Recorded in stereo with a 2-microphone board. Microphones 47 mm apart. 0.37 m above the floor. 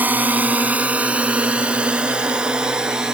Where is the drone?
35° right (ahead or behind); by 3.1 s 15° right (ahead or behind).